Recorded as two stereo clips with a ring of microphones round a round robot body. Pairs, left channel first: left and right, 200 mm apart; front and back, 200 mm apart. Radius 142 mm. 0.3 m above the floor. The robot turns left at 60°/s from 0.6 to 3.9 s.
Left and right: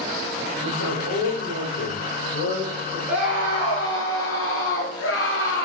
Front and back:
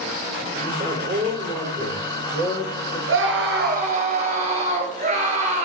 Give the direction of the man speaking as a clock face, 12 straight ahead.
4 o'clock.